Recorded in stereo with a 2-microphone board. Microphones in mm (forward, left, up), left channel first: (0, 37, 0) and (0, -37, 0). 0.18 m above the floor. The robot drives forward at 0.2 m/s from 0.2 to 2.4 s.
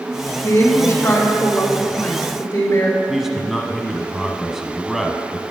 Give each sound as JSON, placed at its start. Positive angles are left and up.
{"t": 0.4, "sound": "a woman speaking", "side_deg": 30, "distance_m": 2.5}
{"t": 3.1, "sound": "a man speaking", "side_deg": -5, "distance_m": 1.0}